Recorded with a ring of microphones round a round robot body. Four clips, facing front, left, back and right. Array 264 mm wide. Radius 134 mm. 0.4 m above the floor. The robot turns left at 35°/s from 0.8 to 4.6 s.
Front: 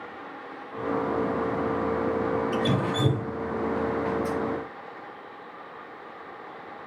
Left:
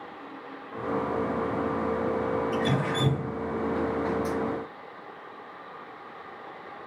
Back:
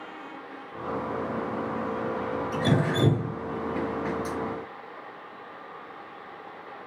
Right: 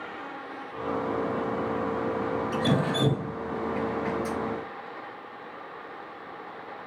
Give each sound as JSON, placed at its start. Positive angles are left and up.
{"t": 2.5, "sound": "dripping", "azimuth_deg": -155, "distance_m": 4.0}